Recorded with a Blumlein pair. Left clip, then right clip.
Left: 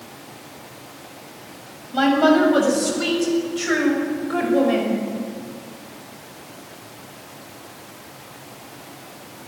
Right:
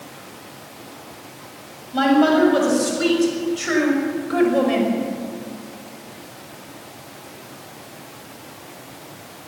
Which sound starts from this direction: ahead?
A woman speaking, at 1.9 s.